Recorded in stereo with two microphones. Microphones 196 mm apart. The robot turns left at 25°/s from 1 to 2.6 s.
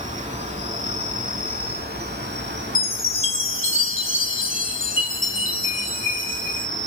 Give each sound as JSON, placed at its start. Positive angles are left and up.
{"t": 0.0, "sound": "an insect", "azimuth_deg": -40, "distance_m": 0.7}
{"t": 2.8, "sound": "a chime", "side_deg": 80, "distance_m": 0.7}